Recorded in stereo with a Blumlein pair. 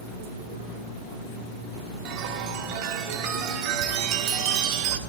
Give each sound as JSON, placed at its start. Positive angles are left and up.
{"t": 2.0, "sound": "a chime", "azimuth_deg": -40, "distance_m": 1.7}